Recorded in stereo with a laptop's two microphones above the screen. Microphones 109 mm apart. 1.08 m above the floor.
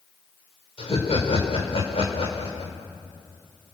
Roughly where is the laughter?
Left.